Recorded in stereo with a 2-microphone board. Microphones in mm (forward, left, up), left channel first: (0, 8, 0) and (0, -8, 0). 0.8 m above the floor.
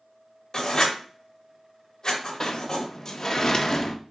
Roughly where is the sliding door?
Left.